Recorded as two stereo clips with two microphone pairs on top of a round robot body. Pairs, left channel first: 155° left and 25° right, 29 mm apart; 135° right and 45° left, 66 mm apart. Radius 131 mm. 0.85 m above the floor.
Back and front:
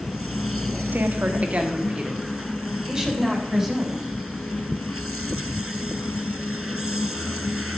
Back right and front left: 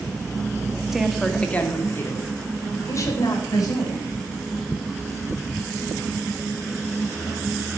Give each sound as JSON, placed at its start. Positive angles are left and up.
{"t": 0.9, "sound": "a woman speaking", "azimuth_deg": -40, "distance_m": 1.5}